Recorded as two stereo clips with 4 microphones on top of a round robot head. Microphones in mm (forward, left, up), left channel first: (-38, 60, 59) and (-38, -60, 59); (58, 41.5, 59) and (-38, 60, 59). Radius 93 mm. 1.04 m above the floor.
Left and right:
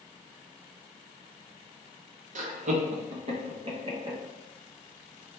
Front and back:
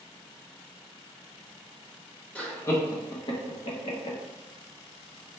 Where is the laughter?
90° right, 0.9 m; by 4.2 s 30° right, 1.2 m.